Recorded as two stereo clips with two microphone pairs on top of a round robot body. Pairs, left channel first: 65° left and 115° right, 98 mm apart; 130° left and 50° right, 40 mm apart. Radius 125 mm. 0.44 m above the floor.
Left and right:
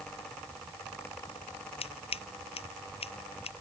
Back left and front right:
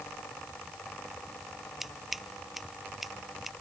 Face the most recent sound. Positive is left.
turn(degrees=35)